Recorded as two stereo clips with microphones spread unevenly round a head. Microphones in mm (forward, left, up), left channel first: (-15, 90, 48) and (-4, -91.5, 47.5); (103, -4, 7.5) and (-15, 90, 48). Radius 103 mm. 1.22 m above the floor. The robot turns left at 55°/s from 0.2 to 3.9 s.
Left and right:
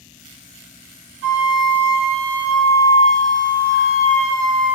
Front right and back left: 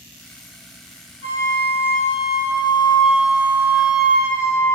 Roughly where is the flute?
Right.